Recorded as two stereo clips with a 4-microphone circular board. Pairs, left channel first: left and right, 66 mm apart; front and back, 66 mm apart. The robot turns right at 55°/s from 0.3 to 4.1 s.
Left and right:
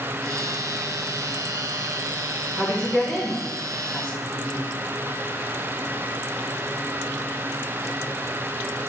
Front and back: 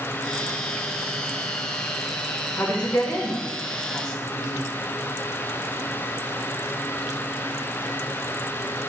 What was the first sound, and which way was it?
A woman speaking, 10° right.